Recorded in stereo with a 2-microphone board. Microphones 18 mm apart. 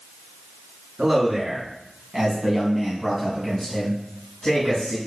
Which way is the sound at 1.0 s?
40° right (ahead or behind).